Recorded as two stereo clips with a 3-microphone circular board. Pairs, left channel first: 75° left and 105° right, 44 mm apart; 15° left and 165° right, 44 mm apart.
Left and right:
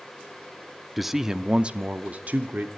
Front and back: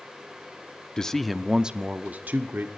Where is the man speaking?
20° right, 0.6 m; by 2.7 s 145° right, 0.9 m.